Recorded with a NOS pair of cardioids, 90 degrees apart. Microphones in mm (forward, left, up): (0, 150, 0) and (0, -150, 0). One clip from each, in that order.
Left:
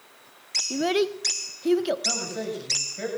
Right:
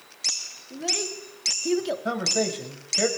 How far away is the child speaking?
About 0.7 m.